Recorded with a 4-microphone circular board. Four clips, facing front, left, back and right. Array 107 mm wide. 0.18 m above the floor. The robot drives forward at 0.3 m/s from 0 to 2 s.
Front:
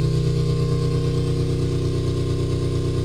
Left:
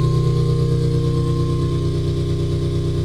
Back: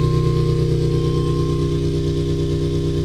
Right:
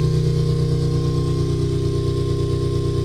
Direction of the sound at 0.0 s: 165° right.